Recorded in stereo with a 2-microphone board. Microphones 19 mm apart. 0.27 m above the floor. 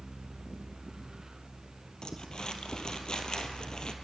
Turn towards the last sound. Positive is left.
turn(degrees=45)  # may be behind; listen again after turning